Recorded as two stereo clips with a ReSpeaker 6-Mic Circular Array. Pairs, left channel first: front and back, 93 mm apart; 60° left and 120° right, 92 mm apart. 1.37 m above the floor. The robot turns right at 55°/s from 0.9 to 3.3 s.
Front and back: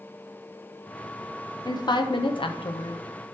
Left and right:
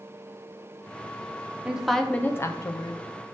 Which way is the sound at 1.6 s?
45° right.